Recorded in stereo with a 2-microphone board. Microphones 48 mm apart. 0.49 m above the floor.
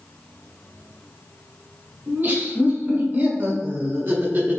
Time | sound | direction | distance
2.1 | laughter | 45° right (ahead or behind) | 1.8 m